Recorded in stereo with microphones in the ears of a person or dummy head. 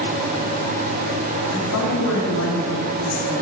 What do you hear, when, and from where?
1.5 s a woman speaking: 75° left (ahead or behind), 3 m